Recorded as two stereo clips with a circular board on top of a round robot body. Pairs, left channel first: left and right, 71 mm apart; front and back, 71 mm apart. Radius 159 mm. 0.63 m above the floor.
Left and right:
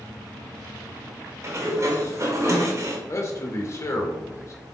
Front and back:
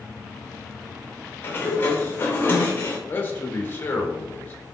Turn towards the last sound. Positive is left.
turn(degrees=55)